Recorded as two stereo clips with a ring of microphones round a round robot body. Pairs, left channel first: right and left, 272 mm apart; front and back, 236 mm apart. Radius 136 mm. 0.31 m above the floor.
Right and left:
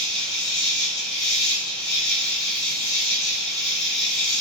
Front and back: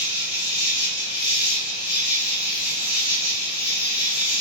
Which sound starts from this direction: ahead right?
An insect, at 0.0 s.